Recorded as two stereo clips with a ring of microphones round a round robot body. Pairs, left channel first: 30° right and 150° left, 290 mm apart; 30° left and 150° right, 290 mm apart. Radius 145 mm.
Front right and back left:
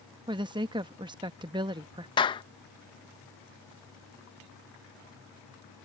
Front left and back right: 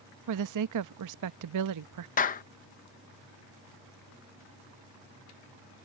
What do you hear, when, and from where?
0.3 s a woman speaking: 135° right
2.2 s a clap: 20° left